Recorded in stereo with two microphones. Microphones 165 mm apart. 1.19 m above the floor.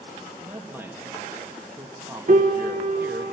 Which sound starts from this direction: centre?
A man speaking, at 0.4 s.